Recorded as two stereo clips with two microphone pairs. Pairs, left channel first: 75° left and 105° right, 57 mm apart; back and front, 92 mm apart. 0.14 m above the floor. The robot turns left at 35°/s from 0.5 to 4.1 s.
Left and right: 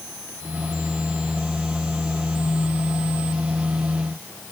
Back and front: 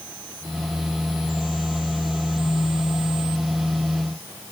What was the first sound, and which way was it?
Only background noise.